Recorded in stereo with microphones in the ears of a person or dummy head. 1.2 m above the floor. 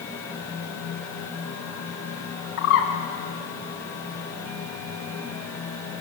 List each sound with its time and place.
0.0 s a fan: 10° left (ahead or behind), 3 m
2.6 s a bird: 65° left (ahead or behind), 2 m